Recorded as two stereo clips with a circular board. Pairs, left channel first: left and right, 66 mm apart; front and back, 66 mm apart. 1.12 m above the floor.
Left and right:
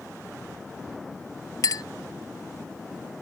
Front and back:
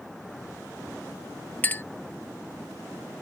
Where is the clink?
60° left.